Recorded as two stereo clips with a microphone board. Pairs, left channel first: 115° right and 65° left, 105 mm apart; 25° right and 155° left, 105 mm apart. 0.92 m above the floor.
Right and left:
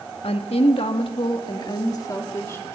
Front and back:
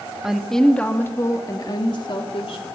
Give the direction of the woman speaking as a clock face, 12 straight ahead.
4 o'clock.